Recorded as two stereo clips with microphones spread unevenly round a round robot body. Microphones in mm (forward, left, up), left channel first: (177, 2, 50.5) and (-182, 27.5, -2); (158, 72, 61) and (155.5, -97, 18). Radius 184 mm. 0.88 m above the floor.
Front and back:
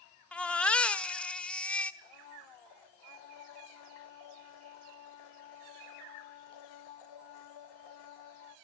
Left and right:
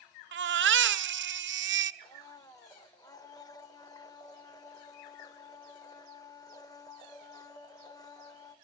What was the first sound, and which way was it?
A baby crying, 90° right.